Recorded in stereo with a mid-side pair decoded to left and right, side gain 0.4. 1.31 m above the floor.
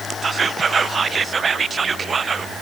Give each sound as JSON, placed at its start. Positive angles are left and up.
{"t": 0.2, "sound": "whispering", "azimuth_deg": -40, "distance_m": 0.7}